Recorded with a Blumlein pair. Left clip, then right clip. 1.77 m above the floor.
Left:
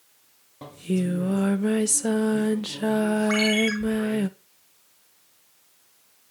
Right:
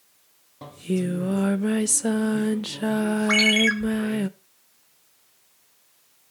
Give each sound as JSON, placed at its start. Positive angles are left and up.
{"t": 0.6, "sound": "singing", "azimuth_deg": -5, "distance_m": 0.6}
{"t": 3.3, "sound": "a ringtone", "azimuth_deg": -35, "distance_m": 3.0}